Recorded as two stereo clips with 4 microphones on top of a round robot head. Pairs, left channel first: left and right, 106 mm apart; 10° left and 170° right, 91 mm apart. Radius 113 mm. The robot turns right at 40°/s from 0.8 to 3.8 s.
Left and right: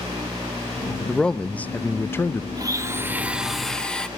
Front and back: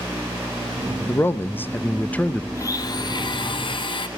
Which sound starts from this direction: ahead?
A man speaking, at 1.1 s.